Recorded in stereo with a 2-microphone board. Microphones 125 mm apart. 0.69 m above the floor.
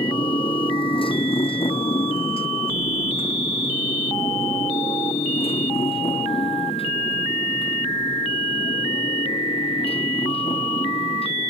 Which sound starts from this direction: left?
A motorcycle, at 0.0 s.